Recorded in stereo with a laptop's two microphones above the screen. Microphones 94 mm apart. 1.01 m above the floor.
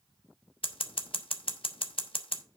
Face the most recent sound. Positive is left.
turn(degrees=65)  # may be behind; listen again after turning